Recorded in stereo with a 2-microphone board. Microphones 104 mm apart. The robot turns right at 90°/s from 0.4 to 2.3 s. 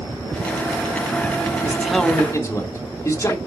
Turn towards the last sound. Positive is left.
turn(degrees=30)